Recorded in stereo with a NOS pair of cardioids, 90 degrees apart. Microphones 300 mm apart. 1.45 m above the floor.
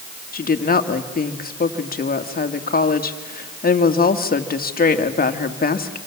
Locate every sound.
0.3 s a woman speaking: 30° left, 2 m